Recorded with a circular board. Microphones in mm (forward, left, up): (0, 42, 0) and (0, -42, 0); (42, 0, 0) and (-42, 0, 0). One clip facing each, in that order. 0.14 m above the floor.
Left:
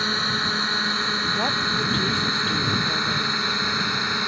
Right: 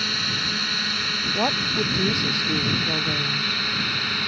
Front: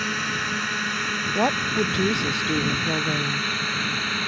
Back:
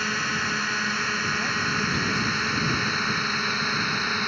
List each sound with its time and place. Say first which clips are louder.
0.0 s a drone: left 4 dB, even; 95° left; by 4.3 s 120° left
1.4 s a woman speaking: right 4 dB, front 4 dB; 15° right